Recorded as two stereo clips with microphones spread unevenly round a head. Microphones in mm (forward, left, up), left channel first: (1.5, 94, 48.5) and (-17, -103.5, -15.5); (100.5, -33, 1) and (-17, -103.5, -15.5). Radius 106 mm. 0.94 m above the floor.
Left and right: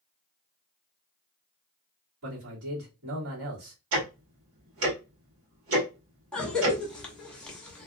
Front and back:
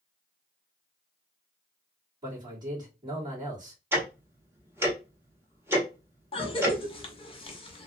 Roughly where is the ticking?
Right.